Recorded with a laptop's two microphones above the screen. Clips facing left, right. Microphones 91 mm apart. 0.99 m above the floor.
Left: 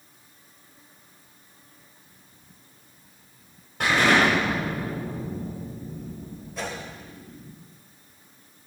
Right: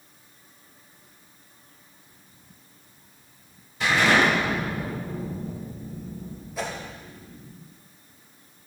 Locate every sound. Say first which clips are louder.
3.8 s an explosion: even; 55° left (ahead or behind), 6 m
6.6 s a whoosh: right 2 dB; 5° right (ahead or behind), 3 m